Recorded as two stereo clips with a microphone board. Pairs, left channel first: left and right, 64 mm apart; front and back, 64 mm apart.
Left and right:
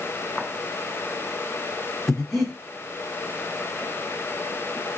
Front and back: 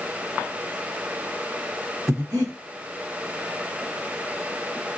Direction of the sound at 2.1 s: 175° left.